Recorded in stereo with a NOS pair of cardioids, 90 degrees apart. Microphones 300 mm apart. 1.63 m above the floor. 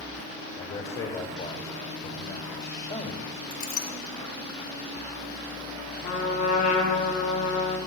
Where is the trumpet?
60° left, 3 m.